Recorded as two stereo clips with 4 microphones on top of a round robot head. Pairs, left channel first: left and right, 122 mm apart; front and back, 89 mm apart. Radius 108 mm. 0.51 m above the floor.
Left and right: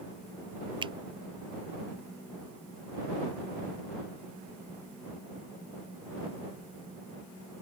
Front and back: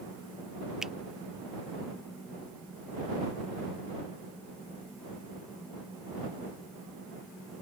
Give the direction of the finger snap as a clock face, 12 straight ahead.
3 o'clock.